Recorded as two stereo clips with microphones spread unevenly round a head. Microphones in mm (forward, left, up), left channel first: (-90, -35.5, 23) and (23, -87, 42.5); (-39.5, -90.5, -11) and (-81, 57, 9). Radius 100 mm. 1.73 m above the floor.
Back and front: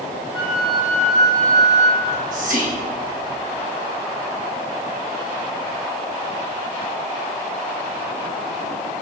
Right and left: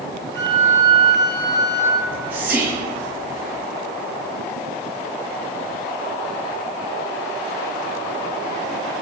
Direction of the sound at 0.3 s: Straight ahead.